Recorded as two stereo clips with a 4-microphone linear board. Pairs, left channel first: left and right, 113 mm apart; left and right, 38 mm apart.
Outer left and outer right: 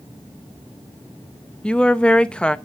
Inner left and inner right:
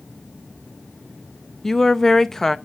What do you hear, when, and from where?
1.6 s a woman speaking: 10° left (ahead or behind), 0.5 m